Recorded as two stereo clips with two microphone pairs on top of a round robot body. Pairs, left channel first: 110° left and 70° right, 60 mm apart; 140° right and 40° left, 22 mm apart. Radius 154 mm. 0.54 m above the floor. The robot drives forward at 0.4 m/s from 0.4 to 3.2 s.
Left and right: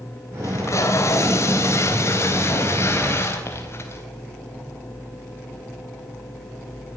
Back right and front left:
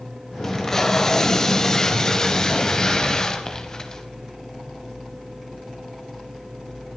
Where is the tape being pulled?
145° left, 3 m; by 4.0 s 155° left, 4 m.